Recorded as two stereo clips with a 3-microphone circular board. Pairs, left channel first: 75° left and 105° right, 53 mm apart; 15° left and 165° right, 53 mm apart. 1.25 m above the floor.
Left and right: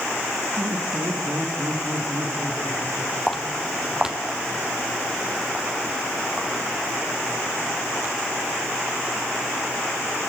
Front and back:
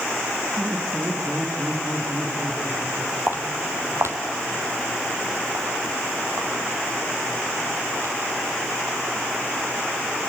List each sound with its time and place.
0.6 s laughter: 90° right, 4.5 m; by 3.2 s 95° right, 7.5 m
3.3 s footsteps: 160° left, 2.5 m; by 8.1 s 150° right, 8.5 m